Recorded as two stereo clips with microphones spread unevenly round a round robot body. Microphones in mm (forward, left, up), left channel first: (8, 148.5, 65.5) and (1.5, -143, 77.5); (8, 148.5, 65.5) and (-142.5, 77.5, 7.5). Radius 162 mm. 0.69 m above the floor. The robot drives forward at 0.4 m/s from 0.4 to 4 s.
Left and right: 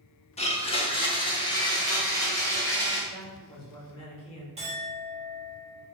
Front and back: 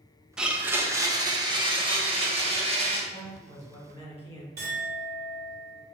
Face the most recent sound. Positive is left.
turn(degrees=-160)